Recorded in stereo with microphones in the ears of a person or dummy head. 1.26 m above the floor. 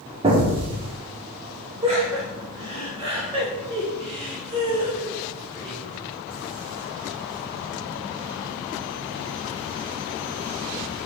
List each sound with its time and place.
0.2 s an explosion: 25° right (ahead or behind), 0.6 m
1.8 s laughter: 30° right (ahead or behind), 1.1 m